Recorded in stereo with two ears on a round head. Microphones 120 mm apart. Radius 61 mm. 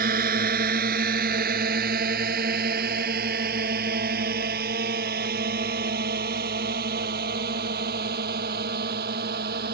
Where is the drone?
70° right (ahead or behind); by 9.7 s 75° right (ahead or behind).